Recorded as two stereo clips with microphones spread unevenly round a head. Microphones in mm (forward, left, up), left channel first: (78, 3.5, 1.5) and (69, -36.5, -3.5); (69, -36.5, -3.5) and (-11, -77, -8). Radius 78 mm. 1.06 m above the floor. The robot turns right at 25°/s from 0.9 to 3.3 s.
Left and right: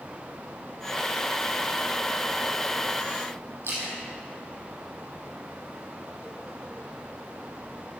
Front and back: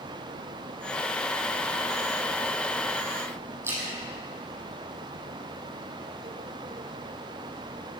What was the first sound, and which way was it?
A splash, 95° right.